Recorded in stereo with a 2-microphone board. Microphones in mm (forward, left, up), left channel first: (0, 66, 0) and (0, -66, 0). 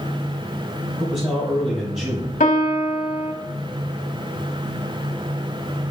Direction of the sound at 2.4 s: 70° left (ahead or behind).